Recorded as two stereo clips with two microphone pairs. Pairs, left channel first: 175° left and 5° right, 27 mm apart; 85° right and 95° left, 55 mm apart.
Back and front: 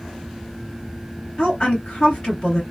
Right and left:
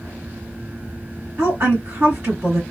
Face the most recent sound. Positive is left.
turn(degrees=130)